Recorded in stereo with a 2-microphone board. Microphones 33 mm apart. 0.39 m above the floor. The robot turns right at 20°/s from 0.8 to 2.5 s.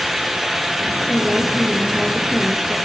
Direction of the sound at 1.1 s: 35° right (ahead or behind).